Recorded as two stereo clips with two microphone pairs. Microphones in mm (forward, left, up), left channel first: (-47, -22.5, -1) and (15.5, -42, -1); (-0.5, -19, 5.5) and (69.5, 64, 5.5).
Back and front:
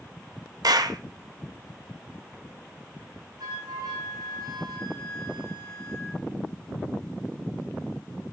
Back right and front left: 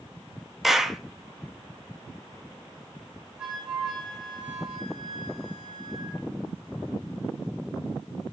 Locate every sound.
0.6 s a clap: 35° right, 0.5 m
3.4 s a flute: 30° right, 4 m